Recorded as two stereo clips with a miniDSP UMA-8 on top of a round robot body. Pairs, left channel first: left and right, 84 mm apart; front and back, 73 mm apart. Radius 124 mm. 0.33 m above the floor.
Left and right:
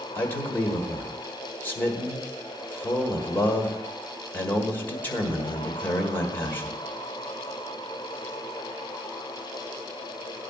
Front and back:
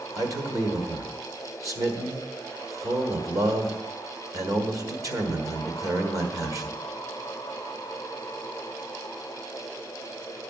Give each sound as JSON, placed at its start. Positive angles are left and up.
{"t": 0.1, "sound": "a man speaking", "azimuth_deg": 155, "distance_m": 1.9}